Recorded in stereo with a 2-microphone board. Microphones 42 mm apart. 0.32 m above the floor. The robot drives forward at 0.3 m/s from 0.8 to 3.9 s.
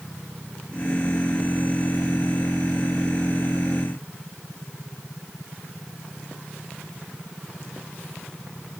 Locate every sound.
Only background noise.